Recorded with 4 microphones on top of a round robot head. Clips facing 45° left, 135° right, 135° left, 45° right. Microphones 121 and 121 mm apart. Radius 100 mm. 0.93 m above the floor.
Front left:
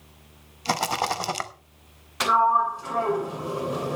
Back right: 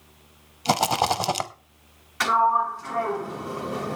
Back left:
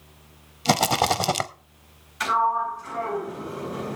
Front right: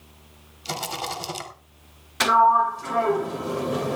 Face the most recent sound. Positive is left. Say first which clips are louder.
# even, front right 6 dB
turn(degrees=-30)